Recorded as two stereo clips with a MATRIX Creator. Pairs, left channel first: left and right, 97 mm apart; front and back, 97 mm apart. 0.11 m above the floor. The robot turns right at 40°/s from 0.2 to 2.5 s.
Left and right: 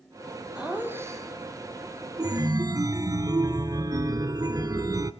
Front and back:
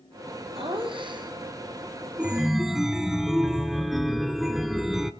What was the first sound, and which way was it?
Laughter, 170° right.